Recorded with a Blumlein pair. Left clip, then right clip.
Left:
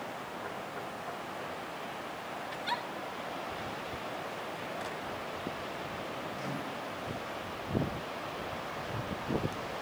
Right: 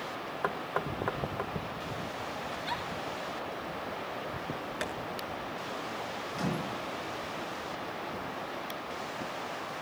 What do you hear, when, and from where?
0.4 s knocking: 35° right, 1.3 m
2.5 s a giggle: 5° left, 2.5 m
4.8 s tapping: 60° right, 7 m
6.3 s a microwave: 60° right, 7 m